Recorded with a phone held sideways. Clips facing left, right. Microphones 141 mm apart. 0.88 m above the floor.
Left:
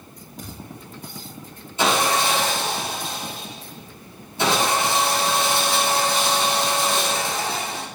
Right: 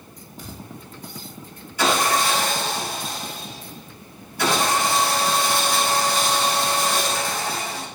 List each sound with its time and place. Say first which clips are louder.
0.4 s a thud: even; 85° left, 6.5 m
1.8 s sawing: even; 25° left (ahead or behind), 7 m